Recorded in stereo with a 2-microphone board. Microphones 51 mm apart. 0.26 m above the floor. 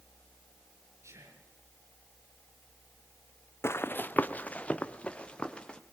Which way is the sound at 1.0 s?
70° right (ahead or behind).